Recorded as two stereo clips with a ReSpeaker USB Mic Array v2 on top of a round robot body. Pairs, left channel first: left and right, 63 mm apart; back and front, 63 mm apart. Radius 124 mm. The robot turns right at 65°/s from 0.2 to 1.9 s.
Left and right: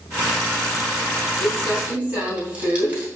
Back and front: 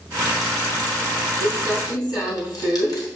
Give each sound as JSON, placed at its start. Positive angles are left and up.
{"t": 1.4, "sound": "crumpling", "azimuth_deg": 165, "distance_m": 4.5}